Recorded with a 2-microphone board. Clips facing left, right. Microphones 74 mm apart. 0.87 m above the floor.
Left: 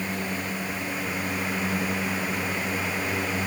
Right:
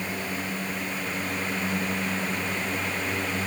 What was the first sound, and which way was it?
Only background noise.